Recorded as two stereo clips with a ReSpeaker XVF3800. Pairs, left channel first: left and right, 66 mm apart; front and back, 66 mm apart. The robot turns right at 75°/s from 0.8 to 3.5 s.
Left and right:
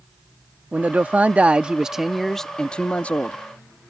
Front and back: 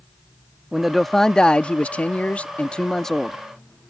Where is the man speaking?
100° right; by 3.4 s 90° left.